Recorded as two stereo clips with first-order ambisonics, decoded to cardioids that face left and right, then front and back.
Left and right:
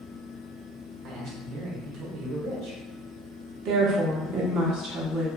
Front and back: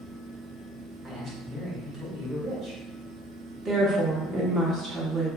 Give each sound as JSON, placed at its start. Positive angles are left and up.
{"t": 1.0, "sound": "a man speaking", "azimuth_deg": -110, "distance_m": 1.1}
{"t": 3.6, "sound": "a woman speaking", "azimuth_deg": -115, "distance_m": 0.8}